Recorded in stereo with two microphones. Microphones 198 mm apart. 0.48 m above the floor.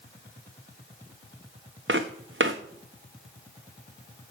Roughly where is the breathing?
No breathing in this recording.